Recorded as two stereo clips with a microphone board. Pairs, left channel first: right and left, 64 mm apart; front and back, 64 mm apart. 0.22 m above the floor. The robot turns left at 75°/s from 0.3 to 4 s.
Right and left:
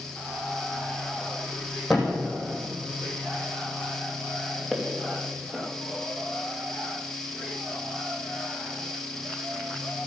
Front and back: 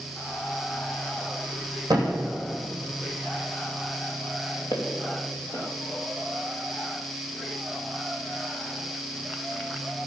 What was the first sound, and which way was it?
A thud, straight behind.